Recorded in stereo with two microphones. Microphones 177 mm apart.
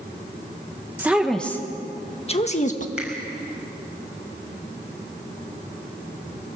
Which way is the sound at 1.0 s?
10° right (ahead or behind).